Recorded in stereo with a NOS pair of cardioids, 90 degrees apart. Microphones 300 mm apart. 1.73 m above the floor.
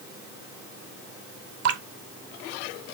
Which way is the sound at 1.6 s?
55° right.